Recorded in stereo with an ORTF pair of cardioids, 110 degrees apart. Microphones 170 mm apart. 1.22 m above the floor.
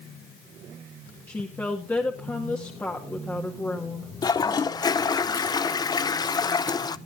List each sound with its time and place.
1.3 s a woman speaking: 10° left, 2.0 m
4.2 s a toilet flushing: 25° left, 0.6 m